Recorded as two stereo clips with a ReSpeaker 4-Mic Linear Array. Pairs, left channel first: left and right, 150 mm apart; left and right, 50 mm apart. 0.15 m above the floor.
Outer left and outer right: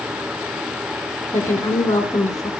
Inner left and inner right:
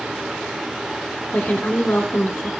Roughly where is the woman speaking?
Left.